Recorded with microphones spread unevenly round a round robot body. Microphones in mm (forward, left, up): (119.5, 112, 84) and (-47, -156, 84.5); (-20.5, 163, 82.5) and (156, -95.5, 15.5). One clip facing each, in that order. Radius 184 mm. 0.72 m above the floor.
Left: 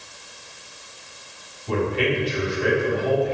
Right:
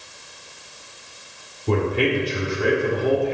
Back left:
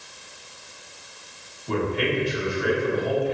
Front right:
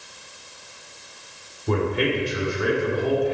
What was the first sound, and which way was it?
A man speaking, 90° right.